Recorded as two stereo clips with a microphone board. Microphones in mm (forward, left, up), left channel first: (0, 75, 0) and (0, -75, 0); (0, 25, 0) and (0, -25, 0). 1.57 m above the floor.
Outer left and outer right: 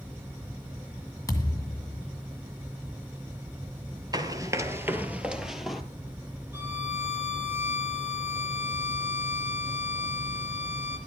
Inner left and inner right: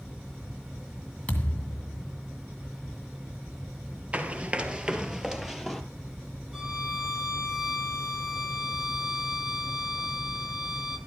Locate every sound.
1.3 s a thud: 25° left (ahead or behind), 2 m
4.1 s running footsteps: 25° right (ahead or behind), 1.7 m; by 5.8 s centre (ahead or behind), 1.9 m
6.5 s a violin: 15° right (ahead or behind), 2.5 m